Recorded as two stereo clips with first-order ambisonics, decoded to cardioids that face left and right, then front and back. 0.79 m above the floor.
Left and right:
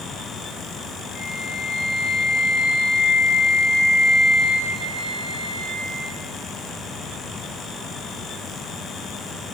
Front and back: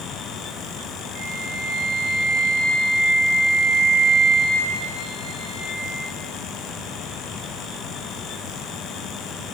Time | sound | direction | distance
1.1 | a flute | 145° left | 2.5 m